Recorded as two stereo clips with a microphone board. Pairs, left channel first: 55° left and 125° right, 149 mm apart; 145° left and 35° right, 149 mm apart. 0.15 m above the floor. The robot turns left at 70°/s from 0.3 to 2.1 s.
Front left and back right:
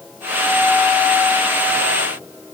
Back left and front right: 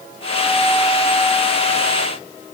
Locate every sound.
Only background noise.